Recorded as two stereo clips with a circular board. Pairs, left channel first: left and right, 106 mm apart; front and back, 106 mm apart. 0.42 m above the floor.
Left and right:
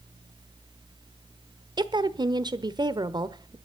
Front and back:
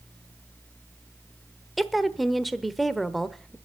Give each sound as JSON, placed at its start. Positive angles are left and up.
{"t": 1.8, "sound": "a woman speaking", "azimuth_deg": -90, "distance_m": 1.0}